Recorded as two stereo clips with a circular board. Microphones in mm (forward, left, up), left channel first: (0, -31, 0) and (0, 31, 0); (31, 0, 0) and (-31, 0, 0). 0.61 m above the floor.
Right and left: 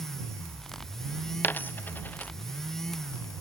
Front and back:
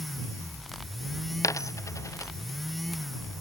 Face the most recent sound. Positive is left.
turn(degrees=-30)